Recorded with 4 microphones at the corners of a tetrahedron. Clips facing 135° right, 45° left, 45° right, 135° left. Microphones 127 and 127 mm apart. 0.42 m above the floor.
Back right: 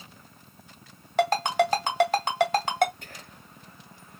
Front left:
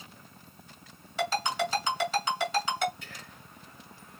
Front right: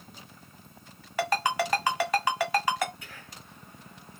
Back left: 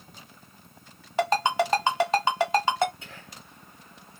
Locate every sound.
1.2 s a ringtone: 165° right, 1.6 m
3.0 s whispering: 165° right, 2 m